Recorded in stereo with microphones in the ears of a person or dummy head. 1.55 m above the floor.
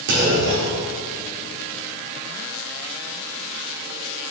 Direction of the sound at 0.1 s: 55° right (ahead or behind).